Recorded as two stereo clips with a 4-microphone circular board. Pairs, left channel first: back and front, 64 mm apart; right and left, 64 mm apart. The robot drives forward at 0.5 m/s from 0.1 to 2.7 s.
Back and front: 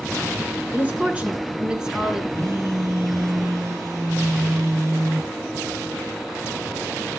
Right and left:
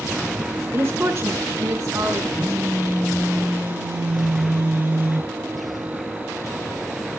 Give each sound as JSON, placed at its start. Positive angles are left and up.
{"t": 0.7, "sound": "a woman speaking", "azimuth_deg": 55, "distance_m": 2.5}
{"t": 2.3, "sound": "a phone buzzing", "azimuth_deg": 25, "distance_m": 7.5}